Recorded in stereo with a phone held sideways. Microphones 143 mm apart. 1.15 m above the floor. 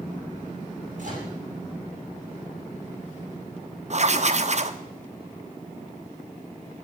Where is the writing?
50° right (ahead or behind), 0.8 m.